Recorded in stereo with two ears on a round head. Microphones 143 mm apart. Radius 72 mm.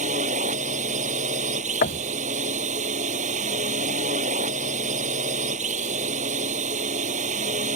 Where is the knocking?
55° left (ahead or behind).